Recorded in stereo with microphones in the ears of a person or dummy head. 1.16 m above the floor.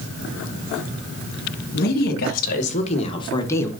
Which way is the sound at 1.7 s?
50° left (ahead or behind).